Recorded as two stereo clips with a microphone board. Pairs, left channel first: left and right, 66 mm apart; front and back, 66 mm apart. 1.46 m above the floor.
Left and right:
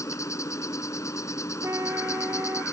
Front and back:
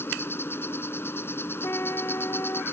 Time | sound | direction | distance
0.0 | an insect | 50° left | ?
1.6 | a trumpet | 50° right | ?